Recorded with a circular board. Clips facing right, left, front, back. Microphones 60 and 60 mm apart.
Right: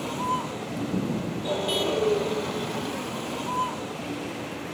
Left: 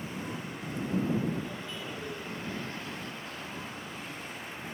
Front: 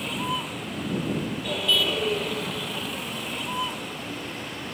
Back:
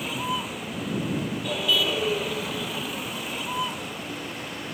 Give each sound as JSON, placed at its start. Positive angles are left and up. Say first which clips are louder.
{"t": 0.0, "sound": "a vehicle", "louder": "right 11 dB, even", "azimuth_deg": -95}